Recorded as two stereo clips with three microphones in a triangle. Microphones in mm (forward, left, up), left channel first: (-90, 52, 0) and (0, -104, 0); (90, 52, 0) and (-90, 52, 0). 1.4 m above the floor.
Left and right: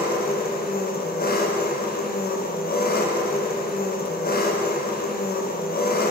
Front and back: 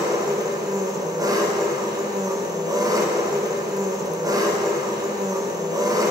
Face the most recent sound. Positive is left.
turn(degrees=115)